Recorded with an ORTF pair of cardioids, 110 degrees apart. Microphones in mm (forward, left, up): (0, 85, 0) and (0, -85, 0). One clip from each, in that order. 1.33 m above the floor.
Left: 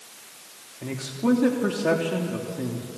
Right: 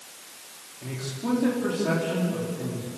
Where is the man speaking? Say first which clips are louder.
Left 5 dB; 45° left, 3 m.